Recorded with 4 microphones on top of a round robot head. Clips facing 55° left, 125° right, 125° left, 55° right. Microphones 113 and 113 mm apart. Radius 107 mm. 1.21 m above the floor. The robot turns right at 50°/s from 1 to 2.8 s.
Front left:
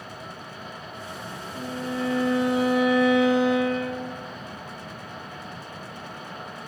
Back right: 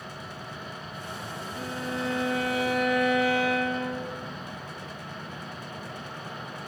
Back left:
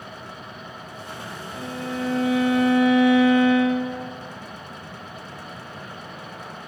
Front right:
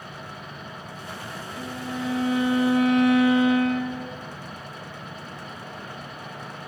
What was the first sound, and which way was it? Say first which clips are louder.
A violin: front left 3 dB, back left 3 dB; 5° left.